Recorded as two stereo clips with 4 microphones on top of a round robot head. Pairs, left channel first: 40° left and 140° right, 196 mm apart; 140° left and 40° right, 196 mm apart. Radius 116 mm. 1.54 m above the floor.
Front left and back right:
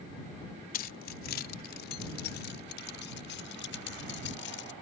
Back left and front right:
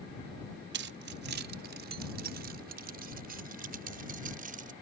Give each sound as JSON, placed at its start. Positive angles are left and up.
{"t": 0.7, "sound": "keys jangling", "azimuth_deg": -5}